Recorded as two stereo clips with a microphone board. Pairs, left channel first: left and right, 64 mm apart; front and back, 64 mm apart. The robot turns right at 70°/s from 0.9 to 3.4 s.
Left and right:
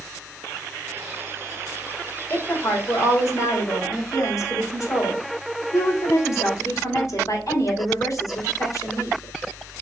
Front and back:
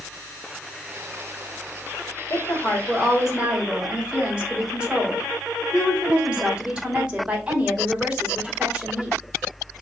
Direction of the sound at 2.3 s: 30° left.